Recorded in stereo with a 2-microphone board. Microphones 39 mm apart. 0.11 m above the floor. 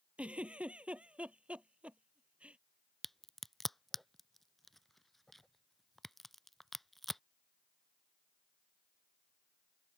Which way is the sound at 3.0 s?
Centre (ahead or behind).